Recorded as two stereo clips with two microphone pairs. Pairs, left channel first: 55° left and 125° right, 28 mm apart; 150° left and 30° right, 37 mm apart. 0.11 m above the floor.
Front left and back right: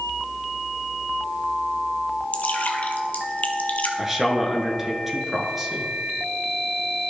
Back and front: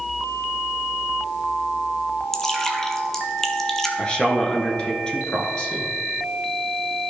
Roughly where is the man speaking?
Behind.